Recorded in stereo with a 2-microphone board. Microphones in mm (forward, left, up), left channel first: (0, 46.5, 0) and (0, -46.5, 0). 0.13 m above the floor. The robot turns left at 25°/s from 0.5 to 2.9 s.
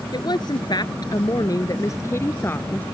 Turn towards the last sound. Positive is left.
turn(degrees=25)